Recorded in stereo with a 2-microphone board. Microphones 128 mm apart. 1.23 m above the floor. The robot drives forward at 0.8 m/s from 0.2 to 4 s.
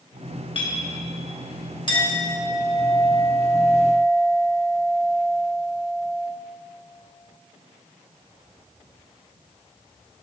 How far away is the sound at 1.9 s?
About 1.4 m.